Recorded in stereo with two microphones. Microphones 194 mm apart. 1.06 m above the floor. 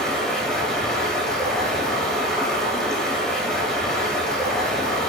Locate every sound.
0.0 s running water: 5° left (ahead or behind), 5.5 m